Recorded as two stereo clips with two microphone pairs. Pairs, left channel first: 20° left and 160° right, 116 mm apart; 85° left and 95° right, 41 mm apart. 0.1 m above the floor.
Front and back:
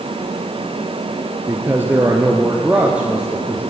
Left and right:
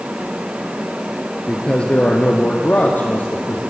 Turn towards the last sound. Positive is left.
turn(degrees=120)